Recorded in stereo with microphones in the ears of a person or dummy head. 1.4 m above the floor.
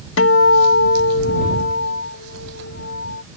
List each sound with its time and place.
0.2 s a guitar: 75° left (ahead or behind)